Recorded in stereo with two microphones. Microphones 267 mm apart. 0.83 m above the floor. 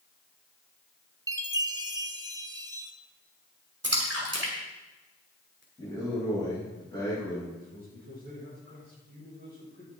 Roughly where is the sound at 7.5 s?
Right.